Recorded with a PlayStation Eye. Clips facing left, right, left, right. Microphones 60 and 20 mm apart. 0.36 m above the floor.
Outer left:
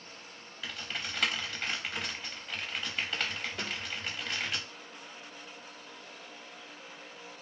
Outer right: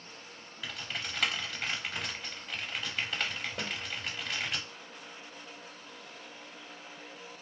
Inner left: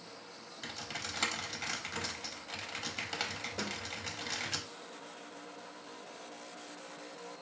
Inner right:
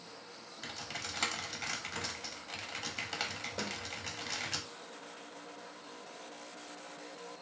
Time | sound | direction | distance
0.6 | typing on a keyboard | centre (ahead or behind) | 0.6 m
3.6 | a snare drum | 50° right (ahead or behind) | 2 m